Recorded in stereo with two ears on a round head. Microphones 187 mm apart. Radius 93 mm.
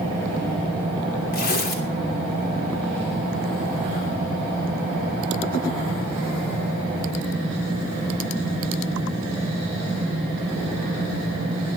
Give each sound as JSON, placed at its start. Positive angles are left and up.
{"t": 1.3, "sound": "tearing paper", "side_deg": 45, "distance_m": 2.5}